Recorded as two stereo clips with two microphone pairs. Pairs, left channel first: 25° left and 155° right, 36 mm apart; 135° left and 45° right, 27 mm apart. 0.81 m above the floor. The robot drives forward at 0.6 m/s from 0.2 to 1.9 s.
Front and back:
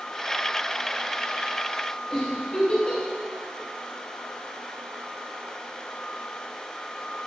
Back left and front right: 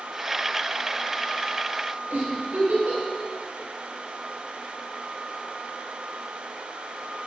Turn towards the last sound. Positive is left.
turn(degrees=-45)